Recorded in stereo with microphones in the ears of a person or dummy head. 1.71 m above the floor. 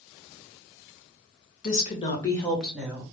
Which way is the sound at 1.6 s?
45° left (ahead or behind).